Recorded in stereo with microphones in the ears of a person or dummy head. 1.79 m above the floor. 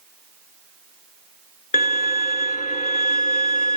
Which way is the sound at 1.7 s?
40° left (ahead or behind).